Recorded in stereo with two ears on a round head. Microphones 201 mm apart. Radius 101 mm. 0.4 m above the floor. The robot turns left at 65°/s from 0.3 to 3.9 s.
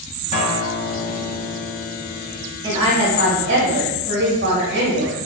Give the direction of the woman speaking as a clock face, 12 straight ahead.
1 o'clock.